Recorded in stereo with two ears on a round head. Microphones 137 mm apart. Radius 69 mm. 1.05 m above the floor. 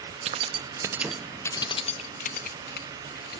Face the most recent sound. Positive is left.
turn(degrees=70)  # may be behind; listen again after turning